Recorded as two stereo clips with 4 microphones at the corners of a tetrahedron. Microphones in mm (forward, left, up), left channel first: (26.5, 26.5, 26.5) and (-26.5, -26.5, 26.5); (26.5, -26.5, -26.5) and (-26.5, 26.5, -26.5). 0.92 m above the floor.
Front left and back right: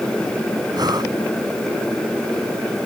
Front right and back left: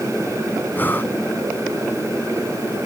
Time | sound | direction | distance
0.7 | breathing | 110° right | ?